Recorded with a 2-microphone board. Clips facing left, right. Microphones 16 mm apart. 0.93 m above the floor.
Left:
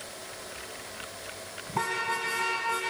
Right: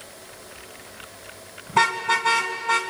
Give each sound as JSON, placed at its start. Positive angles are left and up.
{"t": 1.7, "sound": "a car horn", "side_deg": -65, "distance_m": 3.0}